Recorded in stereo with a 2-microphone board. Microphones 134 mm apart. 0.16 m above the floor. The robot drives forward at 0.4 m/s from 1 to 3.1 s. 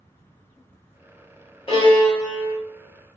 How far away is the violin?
About 1.7 m.